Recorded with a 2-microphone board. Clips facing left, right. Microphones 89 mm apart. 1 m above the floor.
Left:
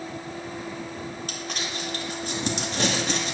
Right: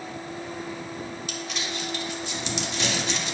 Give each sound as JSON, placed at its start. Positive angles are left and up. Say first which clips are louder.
{"t": 1.3, "sound": "crumpling", "louder": "even", "side_deg": 45, "distance_m": 2.0}